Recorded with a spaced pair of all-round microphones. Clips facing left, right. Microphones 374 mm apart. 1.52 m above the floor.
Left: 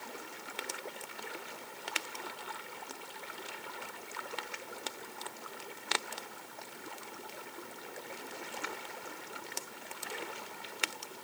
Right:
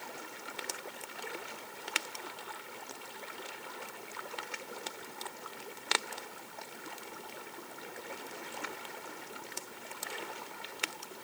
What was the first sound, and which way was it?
Only background noise.